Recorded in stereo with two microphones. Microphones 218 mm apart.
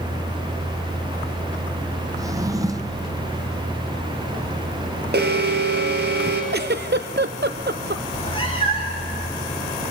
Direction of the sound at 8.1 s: 25° left (ahead or behind).